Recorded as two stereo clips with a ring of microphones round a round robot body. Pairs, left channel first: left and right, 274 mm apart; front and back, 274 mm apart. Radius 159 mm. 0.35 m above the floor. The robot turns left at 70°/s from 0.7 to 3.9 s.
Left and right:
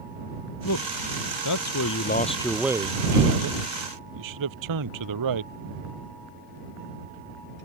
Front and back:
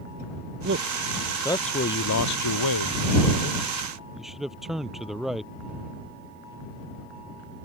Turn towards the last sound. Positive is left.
turn(degrees=-90)